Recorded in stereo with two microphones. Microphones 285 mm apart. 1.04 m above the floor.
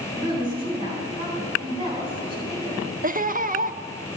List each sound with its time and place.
0.1 s a woman speaking: 20° right (ahead or behind), 3.5 m
3.0 s laughter: 30° right (ahead or behind), 0.5 m